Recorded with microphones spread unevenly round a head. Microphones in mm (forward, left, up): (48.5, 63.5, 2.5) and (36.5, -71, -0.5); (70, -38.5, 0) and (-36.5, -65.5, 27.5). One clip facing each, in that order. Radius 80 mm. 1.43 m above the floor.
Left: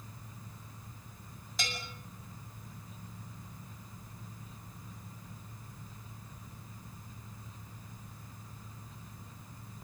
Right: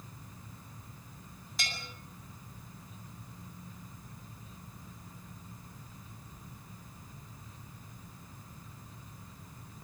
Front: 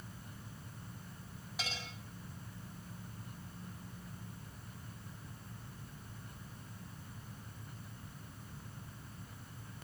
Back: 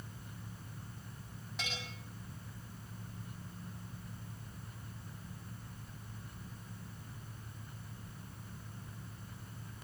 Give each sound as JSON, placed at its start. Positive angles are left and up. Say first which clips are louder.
{"t": 1.6, "sound": "a bell", "louder": "left 2 dB, even", "azimuth_deg": 100, "distance_m": 9.5}